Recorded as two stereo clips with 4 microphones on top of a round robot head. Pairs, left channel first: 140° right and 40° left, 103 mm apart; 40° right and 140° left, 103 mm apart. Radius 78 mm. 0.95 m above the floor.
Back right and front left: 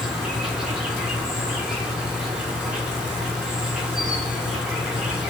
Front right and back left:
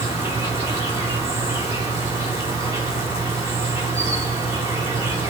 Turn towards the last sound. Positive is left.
turn(degrees=115)